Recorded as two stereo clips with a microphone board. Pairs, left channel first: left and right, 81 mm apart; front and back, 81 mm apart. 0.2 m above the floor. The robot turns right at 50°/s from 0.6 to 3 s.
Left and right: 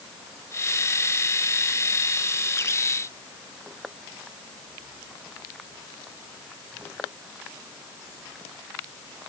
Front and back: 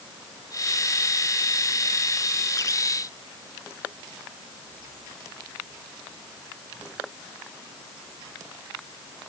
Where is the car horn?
I don't hear a car horn.